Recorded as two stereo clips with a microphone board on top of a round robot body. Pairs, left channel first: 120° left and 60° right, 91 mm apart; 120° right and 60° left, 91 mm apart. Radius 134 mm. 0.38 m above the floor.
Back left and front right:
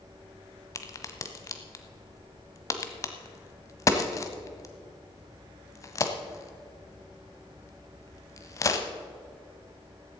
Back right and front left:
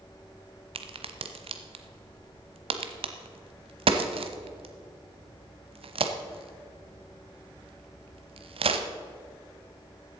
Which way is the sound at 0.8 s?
65° left.